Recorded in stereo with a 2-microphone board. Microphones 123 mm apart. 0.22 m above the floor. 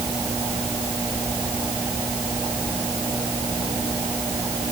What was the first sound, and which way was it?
Only background noise.